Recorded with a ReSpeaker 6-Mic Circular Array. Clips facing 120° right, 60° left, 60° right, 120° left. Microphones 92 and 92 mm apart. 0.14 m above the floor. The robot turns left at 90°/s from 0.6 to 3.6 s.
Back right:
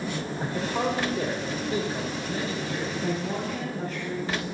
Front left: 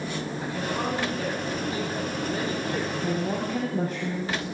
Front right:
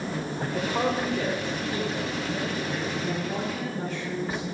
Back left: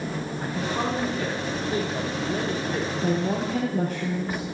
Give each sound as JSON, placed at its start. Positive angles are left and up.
{"t": 0.4, "sound": "a man speaking", "azimuth_deg": -75, "distance_m": 5.5}
{"t": 3.0, "sound": "a woman speaking", "azimuth_deg": 155, "distance_m": 3.0}